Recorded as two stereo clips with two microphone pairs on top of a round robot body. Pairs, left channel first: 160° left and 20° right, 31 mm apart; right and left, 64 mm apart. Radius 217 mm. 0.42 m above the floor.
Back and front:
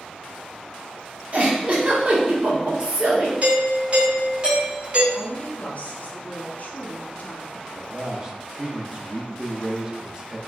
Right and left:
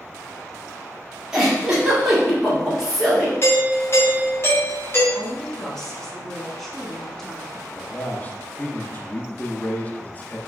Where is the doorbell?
60° right, 1.9 m.